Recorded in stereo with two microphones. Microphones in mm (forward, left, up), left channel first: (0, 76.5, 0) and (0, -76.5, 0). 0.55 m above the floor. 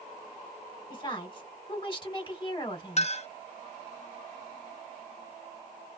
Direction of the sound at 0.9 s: 30° left (ahead or behind).